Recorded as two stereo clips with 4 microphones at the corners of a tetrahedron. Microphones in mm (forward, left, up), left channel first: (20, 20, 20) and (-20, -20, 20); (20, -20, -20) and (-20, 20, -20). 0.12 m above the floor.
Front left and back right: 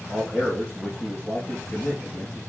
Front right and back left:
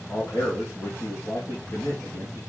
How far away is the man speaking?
About 5 m.